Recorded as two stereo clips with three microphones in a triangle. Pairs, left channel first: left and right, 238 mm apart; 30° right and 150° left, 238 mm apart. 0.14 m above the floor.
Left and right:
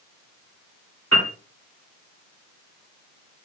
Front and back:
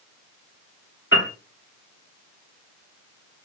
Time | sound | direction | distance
1.1 | a piano | 65° right | 2 m